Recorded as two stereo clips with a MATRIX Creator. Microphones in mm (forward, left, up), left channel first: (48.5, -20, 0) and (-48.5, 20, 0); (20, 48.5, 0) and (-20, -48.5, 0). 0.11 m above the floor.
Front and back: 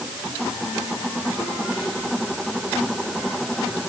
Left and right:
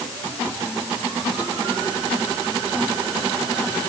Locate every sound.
Only background noise.